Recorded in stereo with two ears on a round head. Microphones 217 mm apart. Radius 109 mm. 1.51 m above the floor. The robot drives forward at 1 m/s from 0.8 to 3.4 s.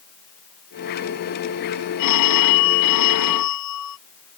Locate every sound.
2.0 s a phone ringing: 85° left